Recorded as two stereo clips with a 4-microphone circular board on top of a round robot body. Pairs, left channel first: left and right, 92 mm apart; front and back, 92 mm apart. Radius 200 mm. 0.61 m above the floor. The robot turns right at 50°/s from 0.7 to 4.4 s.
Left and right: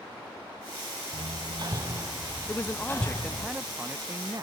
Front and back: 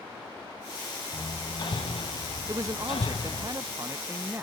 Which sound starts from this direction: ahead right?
Hammering, at 1.1 s.